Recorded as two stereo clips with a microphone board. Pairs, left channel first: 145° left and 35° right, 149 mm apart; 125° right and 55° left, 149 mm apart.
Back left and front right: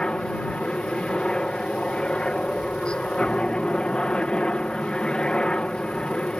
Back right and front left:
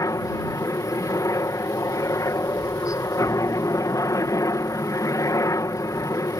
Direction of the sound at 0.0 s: 140° right.